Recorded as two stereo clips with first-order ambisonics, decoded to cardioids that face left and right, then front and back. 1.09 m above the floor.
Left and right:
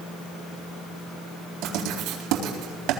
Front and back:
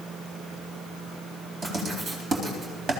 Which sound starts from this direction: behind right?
Writing, at 1.6 s.